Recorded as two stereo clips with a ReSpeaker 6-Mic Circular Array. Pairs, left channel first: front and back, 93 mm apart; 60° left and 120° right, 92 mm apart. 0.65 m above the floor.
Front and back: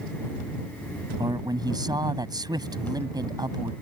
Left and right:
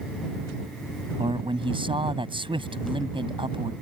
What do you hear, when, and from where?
1.2 s a man speaking: 135° right